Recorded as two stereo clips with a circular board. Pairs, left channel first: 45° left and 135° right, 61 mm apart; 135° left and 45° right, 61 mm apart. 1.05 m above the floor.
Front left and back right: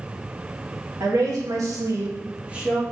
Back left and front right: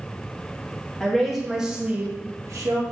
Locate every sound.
1.0 s a woman speaking: 145° right, 1.4 m; by 2.8 s 50° right, 1.0 m